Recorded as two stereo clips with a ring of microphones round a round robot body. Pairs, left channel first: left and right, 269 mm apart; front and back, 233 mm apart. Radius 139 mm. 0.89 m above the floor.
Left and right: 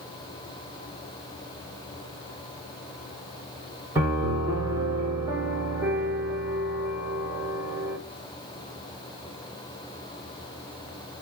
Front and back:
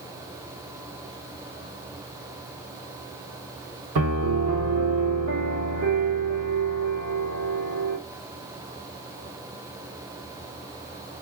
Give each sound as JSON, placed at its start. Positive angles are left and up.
{"t": 4.0, "sound": "a piano", "azimuth_deg": -170, "distance_m": 1.9}